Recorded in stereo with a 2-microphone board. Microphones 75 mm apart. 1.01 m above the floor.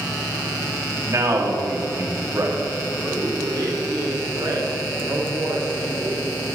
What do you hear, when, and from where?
1.1 s a man speaking: 40° right (ahead or behind), 2 m
3.4 s a man speaking: 75° right (ahead or behind), 3 m